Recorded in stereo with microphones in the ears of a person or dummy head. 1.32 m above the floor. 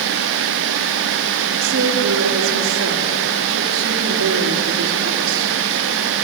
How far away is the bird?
No bird in this recording.